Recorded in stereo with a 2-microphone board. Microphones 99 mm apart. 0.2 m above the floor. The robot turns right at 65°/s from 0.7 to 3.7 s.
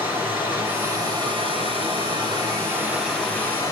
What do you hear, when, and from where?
0.0 s running water: 160° right, 3.5 m; by 3.7 s 35° left, 3.5 m